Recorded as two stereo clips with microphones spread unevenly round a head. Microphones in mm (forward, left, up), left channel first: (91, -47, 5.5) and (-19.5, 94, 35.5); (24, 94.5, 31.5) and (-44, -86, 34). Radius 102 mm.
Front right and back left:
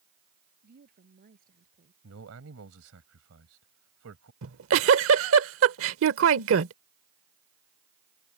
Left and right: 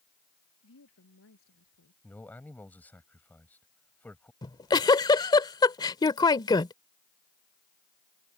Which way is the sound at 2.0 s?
150° left.